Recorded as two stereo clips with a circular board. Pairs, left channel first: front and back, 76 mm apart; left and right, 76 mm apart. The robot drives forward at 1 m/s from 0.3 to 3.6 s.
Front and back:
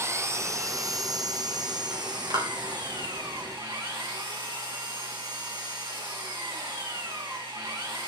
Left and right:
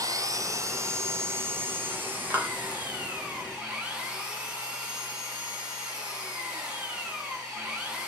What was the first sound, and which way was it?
An engine running, 130° right.